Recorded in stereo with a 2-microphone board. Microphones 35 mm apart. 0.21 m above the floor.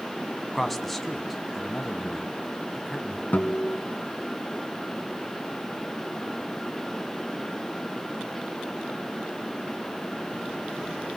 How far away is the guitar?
About 2.5 m.